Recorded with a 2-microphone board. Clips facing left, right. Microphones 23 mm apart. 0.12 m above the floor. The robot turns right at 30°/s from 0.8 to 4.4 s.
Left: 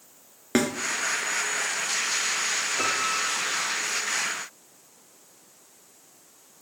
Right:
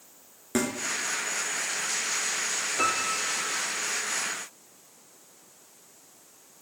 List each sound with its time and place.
0.6 s a snare drum: 35° left (ahead or behind), 0.8 m
2.8 s a piano: 10° right (ahead or behind), 1.6 m; by 3.6 s 30° right (ahead or behind), 1.6 m